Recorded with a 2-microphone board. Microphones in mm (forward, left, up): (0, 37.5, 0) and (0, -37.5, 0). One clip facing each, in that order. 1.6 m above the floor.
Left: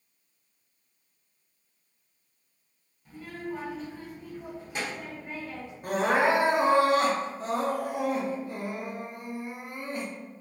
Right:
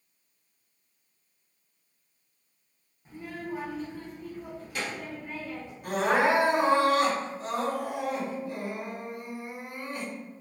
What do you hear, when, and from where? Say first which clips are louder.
3.0 s a child speaking: even; 25° right (ahead or behind), 0.8 m; by 5.7 s 35° left (ahead or behind), 1.6 m
5.8 s crying: even; 35° left (ahead or behind), 0.7 m